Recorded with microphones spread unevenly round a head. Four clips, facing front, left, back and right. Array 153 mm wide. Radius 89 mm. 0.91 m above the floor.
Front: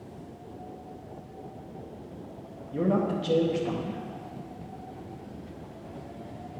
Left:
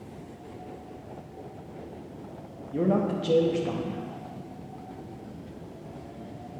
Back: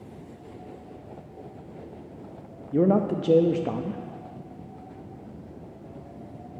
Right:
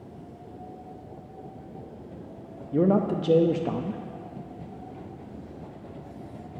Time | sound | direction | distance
2.7 | a man speaking | 140° right | 0.6 m